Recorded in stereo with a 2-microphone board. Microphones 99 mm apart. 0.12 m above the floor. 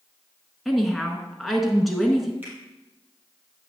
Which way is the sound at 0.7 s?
Centre (ahead or behind).